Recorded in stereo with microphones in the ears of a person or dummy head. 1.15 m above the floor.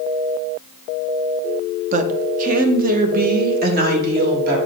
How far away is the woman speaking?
About 0.7 m.